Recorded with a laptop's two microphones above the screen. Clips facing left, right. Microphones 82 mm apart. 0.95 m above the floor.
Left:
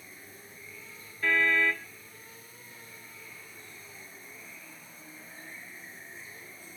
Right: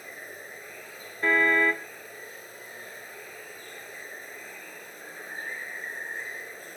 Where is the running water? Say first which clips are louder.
Right 8 dB; 65° right (ahead or behind).